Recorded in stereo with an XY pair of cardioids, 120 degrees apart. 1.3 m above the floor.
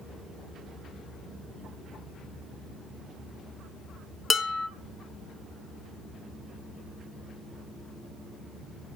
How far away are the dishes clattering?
About 0.9 m.